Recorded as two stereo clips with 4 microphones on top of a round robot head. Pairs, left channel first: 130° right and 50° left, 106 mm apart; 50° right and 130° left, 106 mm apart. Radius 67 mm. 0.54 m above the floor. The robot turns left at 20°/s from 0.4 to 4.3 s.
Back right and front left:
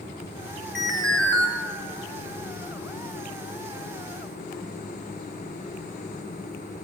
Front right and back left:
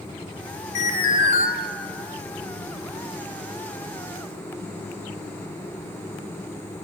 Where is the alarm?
40° right, 2.5 m; by 1.5 s 55° right, 2.5 m.